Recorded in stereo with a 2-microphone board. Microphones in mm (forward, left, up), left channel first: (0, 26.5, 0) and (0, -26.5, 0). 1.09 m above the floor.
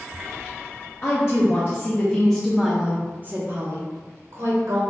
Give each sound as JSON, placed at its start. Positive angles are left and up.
{"t": 1.0, "sound": "a woman speaking", "side_deg": 50, "distance_m": 1.0}